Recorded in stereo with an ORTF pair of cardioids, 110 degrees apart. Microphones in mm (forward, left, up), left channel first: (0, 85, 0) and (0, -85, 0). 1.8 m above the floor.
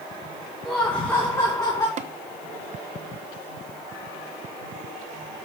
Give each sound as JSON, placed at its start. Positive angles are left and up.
{"t": 0.7, "sound": "laughter", "azimuth_deg": 5, "distance_m": 2.0}
{"t": 2.0, "sound": "tapping", "azimuth_deg": -45, "distance_m": 1.0}